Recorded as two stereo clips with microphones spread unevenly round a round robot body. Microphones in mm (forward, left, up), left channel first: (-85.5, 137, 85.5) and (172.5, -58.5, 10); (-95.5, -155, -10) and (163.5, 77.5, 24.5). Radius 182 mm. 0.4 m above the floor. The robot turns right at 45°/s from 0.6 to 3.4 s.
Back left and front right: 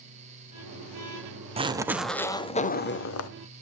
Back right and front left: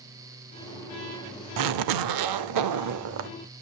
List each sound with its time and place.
1.6 s a zipper: 20° left, 0.8 m; by 3.3 s 100° left, 0.8 m